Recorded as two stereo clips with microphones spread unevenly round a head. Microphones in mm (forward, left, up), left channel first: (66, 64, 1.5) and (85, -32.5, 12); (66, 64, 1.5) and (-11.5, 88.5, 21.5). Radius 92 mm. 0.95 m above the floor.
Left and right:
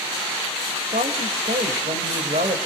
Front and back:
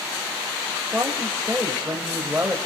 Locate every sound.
0.9 s a woman speaking: 120° right, 4.5 m